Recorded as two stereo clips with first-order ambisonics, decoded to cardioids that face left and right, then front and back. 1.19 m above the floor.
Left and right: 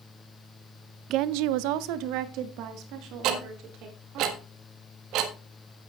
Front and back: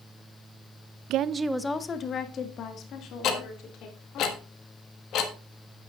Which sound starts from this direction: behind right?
A woman speaking, at 1.1 s.